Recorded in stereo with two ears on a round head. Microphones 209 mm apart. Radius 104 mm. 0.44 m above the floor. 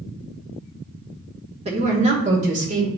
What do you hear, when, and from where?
1.6 s a woman speaking: 30° right (ahead or behind), 1.1 m; by 2.9 s 35° right (ahead or behind), 1.7 m